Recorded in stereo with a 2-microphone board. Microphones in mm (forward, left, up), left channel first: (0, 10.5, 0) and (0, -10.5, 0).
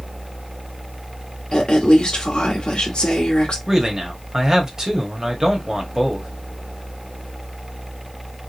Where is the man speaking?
25° right (ahead or behind), 1.7 m.